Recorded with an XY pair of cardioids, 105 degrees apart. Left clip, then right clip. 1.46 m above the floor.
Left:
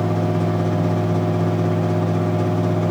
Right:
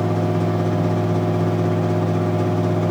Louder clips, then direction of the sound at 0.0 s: Even; straight ahead.